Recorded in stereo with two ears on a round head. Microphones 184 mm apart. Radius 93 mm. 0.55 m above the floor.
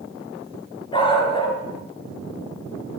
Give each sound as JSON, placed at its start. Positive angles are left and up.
{"t": 0.9, "sound": "a dog barking", "side_deg": 25, "distance_m": 3.0}